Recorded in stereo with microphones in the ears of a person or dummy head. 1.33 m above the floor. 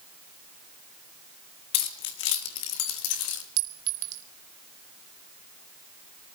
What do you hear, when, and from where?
1.7 s keys jangling: 50° left (ahead or behind), 1.6 m; by 3.4 s 80° left, 2.5 m
3.6 s a clink: 50° right (ahead or behind), 0.6 m